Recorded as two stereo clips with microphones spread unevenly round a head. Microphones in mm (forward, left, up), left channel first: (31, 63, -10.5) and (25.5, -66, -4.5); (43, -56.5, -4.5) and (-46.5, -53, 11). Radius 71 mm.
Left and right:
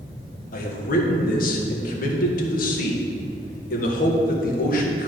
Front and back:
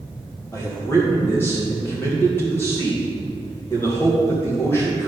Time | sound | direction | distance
0.5 | a man speaking | 75° left | 1.7 m